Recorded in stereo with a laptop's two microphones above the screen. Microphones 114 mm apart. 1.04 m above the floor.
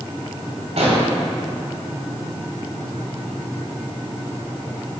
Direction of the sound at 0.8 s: 75° right (ahead or behind).